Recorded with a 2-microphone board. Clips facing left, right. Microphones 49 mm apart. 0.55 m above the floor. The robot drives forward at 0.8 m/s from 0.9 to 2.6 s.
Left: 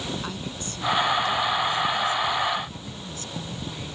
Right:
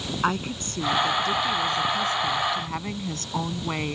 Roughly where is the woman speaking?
Right.